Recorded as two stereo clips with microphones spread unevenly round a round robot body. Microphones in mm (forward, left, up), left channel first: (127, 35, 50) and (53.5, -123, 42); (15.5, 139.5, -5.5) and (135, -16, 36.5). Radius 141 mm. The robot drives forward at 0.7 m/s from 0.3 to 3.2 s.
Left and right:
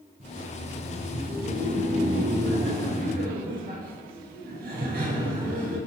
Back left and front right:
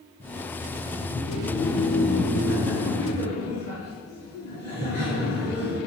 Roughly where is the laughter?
Behind.